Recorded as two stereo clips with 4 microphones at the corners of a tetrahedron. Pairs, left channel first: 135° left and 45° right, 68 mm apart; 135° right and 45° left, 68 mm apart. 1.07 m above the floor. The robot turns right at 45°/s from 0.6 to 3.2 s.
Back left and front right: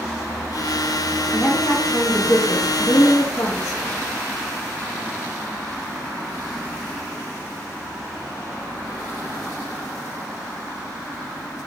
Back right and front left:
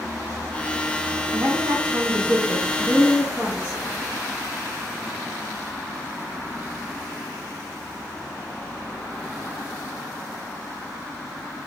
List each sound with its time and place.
1.3 s a woman speaking: 30° left, 0.9 m; by 3.8 s 115° left, 0.9 m